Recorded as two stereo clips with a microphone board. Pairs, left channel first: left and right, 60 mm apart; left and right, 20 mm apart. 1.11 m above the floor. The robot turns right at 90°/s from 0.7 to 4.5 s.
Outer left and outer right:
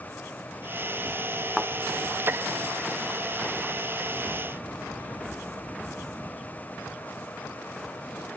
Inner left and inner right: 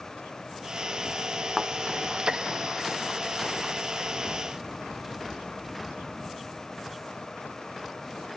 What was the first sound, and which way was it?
A thud, centre (ahead or behind).